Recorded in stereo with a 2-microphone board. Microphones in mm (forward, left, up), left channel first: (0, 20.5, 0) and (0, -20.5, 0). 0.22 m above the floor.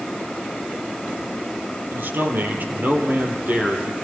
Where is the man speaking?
55° right (ahead or behind), 5 m; by 3.9 s 40° right (ahead or behind), 6 m.